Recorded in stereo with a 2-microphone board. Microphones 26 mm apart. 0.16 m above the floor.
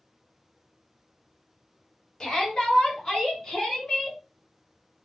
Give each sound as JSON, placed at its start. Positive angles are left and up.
{"t": 2.2, "sound": "a shout", "side_deg": 40, "distance_m": 1.8}